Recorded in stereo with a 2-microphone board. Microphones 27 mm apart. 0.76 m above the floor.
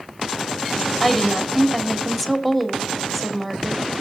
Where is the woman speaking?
5° right (ahead or behind), 1.7 m.